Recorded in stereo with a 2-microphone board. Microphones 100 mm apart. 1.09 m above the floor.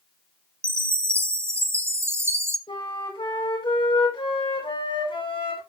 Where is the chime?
25° right (ahead or behind), 0.8 m.